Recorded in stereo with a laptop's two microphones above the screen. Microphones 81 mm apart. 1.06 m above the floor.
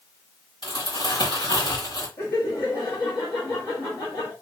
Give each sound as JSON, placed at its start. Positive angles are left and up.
{"t": 0.6, "sound": "crumpling", "side_deg": 70, "distance_m": 1.8}
{"t": 2.2, "sound": "laughter", "side_deg": 60, "distance_m": 1.3}